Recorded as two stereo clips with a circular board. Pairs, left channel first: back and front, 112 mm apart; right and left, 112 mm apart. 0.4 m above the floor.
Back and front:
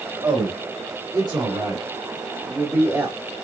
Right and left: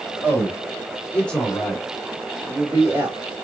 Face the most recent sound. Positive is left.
turn(degrees=45)